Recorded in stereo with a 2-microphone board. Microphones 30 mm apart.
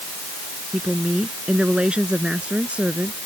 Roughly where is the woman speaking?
Right.